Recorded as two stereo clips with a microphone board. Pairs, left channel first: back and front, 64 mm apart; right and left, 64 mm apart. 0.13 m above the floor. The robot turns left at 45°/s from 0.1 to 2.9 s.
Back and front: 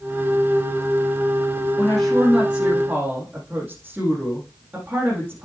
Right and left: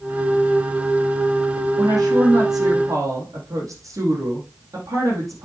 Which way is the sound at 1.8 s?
120° left.